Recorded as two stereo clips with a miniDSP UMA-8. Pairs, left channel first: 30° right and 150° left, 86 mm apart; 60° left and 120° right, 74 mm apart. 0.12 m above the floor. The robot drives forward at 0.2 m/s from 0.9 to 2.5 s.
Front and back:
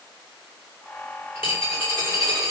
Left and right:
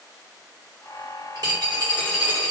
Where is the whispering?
I don't hear whispering.